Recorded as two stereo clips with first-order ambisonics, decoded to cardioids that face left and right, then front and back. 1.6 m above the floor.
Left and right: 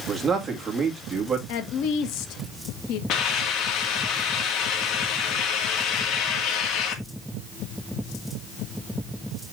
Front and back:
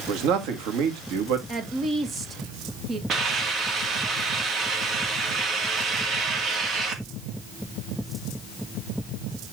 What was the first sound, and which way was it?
A man speaking, 165° right.